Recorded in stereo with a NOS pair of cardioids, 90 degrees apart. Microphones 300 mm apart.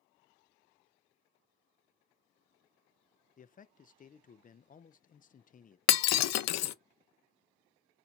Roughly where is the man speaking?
Ahead left.